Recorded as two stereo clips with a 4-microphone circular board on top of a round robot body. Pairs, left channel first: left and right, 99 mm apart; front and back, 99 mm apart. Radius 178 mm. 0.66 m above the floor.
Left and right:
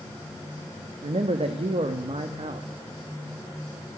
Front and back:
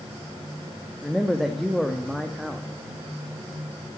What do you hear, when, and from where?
1.0 s a man speaking: 90° right, 1.2 m